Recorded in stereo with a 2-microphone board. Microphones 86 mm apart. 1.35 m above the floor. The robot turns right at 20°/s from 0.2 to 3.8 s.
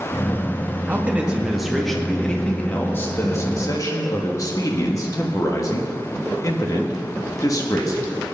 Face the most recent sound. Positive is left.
turn(degrees=40)